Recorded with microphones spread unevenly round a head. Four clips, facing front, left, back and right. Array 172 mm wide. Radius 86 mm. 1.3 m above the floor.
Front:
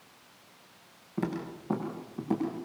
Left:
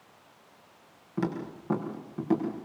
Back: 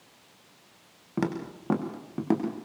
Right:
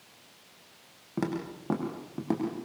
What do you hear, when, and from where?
1.2 s footsteps: 160° right, 5.5 m; by 2.6 s 170° right, 5.5 m